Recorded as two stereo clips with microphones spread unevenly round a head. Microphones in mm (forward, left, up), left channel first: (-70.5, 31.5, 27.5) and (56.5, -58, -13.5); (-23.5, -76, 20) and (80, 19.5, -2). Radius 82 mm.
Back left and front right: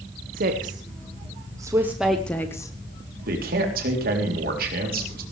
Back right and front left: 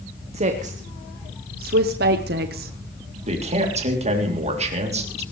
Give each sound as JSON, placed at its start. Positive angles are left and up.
{"t": 0.3, "sound": "a woman speaking", "azimuth_deg": 0, "distance_m": 1.6}
{"t": 3.3, "sound": "a man speaking", "azimuth_deg": 0, "distance_m": 3.5}